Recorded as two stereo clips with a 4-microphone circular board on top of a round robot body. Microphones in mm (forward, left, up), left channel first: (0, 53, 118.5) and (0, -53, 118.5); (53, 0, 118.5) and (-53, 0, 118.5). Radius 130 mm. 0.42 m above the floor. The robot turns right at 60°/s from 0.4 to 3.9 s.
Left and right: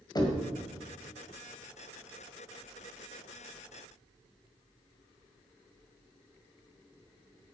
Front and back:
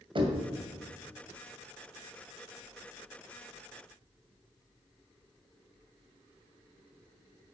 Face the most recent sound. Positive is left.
turn(degrees=-10)